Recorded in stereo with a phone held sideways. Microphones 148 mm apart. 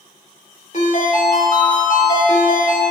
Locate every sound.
0.7 s a ringtone: 55° left (ahead or behind), 2.5 m